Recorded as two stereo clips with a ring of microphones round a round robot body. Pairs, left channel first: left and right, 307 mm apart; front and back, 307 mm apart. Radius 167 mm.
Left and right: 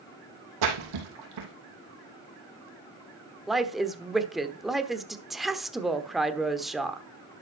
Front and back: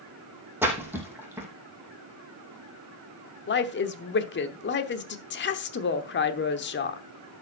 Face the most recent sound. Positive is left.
turn(degrees=0)